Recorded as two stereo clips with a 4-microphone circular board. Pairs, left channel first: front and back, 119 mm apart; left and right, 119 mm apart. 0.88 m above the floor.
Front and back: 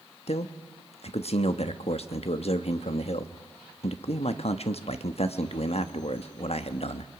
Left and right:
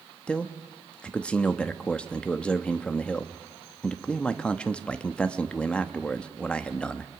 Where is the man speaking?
10° left, 1.2 m.